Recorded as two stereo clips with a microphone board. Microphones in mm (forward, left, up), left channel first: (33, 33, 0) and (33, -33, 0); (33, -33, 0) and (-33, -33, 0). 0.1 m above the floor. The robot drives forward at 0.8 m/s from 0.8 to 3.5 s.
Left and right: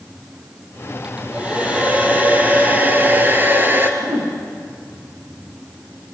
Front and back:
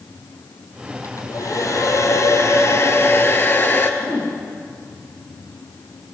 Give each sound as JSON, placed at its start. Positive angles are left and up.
{"t": 1.0, "sound": "a hair dryer", "azimuth_deg": -20, "distance_m": 3.5}
{"t": 4.0, "sound": "a whoosh", "azimuth_deg": -70, "distance_m": 5.0}